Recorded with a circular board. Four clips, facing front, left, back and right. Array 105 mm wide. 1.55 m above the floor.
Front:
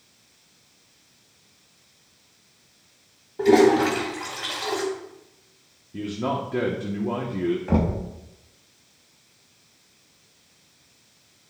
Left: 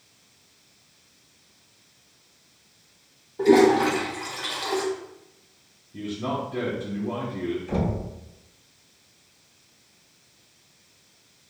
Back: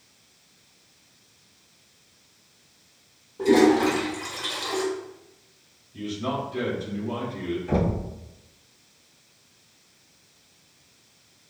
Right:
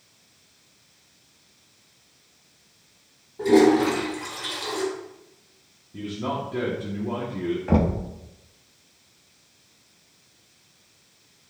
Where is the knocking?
65° right, 1.6 m.